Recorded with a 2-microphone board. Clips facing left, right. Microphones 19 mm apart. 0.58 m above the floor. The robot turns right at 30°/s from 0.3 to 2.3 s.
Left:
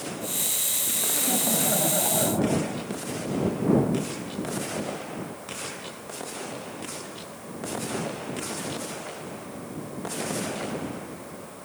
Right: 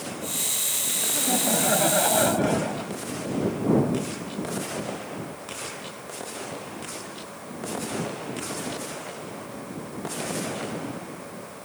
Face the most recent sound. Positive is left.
turn(degrees=-95)